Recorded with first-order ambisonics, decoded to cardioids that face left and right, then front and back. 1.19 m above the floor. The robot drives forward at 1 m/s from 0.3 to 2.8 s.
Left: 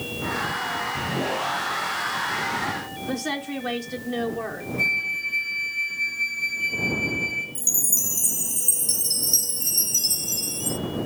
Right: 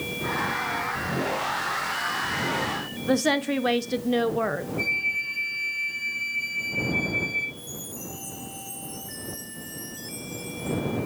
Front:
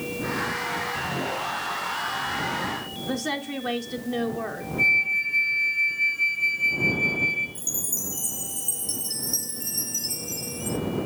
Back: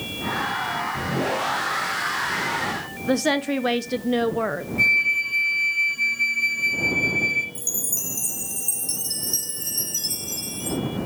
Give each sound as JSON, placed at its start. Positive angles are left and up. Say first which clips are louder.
{"t": 3.1, "sound": "a woman speaking", "louder": "right 7 dB, back 8 dB", "azimuth_deg": -145, "distance_m": 0.7}
{"t": 4.8, "sound": "a flute", "louder": "left 3 dB, back 2 dB", "azimuth_deg": 170, "distance_m": 2.0}
{"t": 7.5, "sound": "a chime", "louder": "left 14 dB, back 2 dB", "azimuth_deg": 105, "distance_m": 0.9}